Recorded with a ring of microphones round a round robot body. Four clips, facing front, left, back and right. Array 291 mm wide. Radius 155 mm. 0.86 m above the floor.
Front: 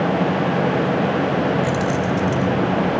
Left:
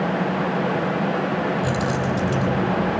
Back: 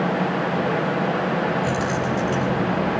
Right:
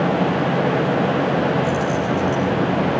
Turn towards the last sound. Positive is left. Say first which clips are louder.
# right 3 dB, front 3 dB
turn(degrees=65)